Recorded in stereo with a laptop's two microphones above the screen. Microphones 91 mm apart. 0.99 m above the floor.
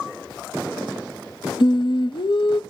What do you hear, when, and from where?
1.6 s singing: 60° left (ahead or behind), 0.5 m